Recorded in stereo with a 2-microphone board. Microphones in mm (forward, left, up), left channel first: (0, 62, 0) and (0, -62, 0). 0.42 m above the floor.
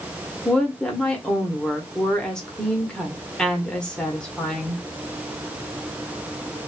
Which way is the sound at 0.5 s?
5° left (ahead or behind).